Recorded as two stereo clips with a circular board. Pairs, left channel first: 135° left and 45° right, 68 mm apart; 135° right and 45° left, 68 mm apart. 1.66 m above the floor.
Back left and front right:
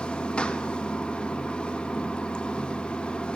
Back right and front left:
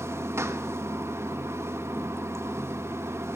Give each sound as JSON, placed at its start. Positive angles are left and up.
{"t": 0.0, "sound": "running water", "azimuth_deg": 65, "distance_m": 1.2}